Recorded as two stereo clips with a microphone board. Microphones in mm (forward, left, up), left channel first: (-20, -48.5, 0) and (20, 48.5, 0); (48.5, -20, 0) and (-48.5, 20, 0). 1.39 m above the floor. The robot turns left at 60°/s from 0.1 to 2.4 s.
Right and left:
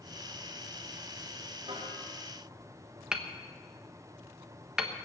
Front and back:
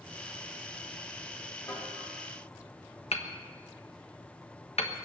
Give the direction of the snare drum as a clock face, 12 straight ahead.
11 o'clock.